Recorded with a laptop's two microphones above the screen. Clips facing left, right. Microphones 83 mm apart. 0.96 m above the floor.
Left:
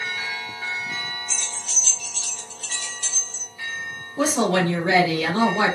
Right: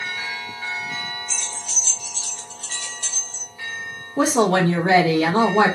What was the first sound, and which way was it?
Keys jangling, centre (ahead or behind).